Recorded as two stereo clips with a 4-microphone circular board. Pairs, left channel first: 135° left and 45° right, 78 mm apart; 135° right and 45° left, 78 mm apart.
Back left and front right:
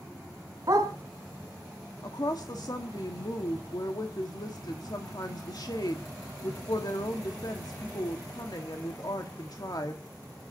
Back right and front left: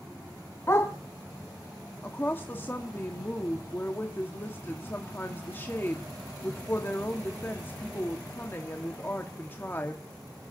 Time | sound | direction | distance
0.7 | a dog barking | 80° right | 2.5 m
2.0 | a woman speaking | 165° left | 1.5 m